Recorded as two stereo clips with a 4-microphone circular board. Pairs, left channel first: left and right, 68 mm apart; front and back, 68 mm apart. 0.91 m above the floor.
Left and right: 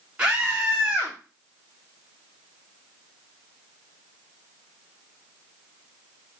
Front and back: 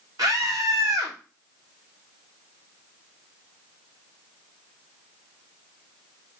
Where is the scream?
165° right, 2.5 m.